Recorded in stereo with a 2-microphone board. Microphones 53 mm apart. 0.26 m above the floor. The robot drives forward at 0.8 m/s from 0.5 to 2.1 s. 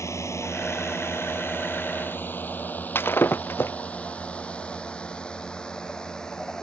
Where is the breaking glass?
45° left (ahead or behind).